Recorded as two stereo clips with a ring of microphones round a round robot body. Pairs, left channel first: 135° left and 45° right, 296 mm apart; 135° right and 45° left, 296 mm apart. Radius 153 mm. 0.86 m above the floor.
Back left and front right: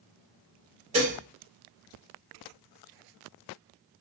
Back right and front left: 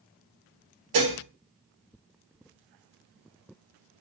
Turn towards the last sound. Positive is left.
turn(degrees=25)